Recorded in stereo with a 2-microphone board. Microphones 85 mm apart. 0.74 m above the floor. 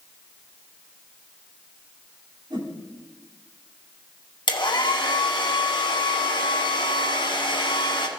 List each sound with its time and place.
2.5 s a whoosh: 65° right (ahead or behind), 2 m
4.5 s a hair dryer: 65° left (ahead or behind), 1.3 m